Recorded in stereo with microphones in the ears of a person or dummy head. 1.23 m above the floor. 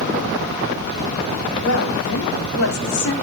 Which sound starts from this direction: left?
A woman speaking, at 1.6 s.